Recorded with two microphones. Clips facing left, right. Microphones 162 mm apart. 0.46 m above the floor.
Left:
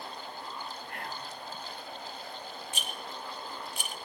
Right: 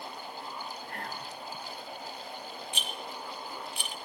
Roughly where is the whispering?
Right.